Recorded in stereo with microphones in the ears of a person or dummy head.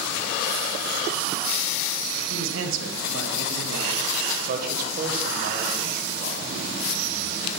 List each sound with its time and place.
2.3 s a man speaking: 75° right (ahead or behind), 1.6 m
4.4 s a man speaking: 50° right (ahead or behind), 1.4 m